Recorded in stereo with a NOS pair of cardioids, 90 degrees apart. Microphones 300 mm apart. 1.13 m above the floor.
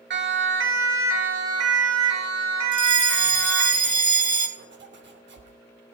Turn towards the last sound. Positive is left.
turn(degrees=-35)